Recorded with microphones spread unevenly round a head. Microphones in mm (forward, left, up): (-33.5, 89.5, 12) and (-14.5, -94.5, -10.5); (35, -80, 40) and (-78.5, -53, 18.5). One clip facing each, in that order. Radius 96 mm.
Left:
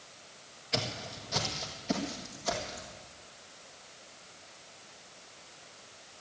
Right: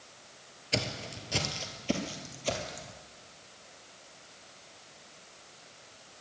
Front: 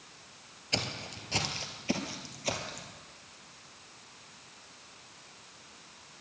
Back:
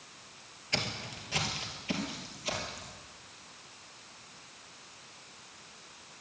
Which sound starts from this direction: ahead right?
Footsteps, at 0.7 s.